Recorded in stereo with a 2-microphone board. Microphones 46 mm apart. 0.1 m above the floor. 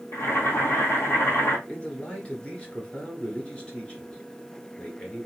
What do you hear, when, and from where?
0.1 s boiling: 65° left (ahead or behind), 1.1 m
1.7 s a man speaking: 25° left (ahead or behind), 1.6 m